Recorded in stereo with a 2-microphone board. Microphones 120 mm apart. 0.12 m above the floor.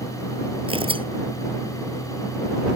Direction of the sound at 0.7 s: 45° right (ahead or behind).